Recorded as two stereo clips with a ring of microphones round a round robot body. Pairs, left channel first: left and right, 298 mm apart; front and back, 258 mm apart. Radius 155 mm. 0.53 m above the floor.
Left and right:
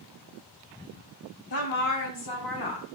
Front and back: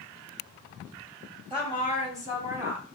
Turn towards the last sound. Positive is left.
turn(degrees=100)